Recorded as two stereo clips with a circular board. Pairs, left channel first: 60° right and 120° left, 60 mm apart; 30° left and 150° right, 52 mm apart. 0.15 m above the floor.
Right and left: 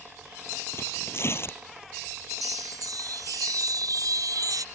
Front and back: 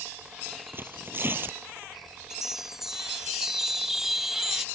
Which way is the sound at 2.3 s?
130° left.